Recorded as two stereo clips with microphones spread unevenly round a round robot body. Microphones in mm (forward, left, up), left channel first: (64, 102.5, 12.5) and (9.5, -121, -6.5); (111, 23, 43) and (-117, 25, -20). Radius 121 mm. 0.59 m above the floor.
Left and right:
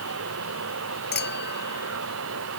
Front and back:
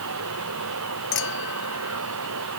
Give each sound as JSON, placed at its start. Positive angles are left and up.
{"t": 0.0, "sound": "running water", "azimuth_deg": -145}
{"t": 1.1, "sound": "a clink", "azimuth_deg": 30}